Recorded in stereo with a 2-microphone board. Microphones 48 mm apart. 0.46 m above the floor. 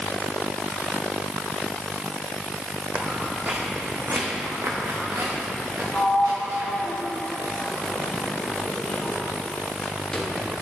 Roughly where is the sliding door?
Centre.